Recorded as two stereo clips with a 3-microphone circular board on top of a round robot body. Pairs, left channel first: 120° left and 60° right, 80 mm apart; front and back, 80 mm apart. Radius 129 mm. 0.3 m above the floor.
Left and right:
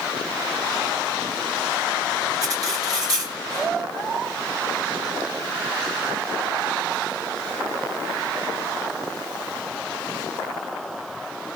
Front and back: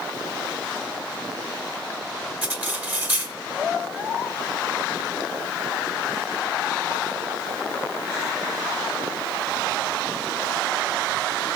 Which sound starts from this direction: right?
Cutlery clinking, at 2.4 s.